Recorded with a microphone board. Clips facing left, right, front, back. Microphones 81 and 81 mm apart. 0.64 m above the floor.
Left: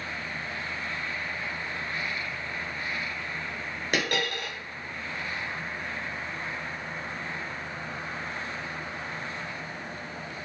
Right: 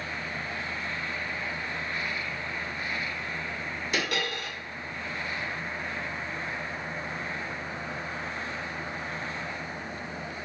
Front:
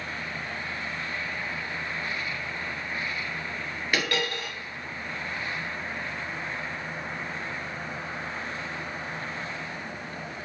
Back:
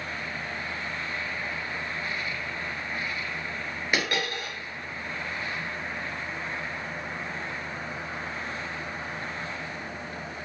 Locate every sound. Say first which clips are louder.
3.9 s a dropped coin: left 2 dB, even; 105° left, 1.3 m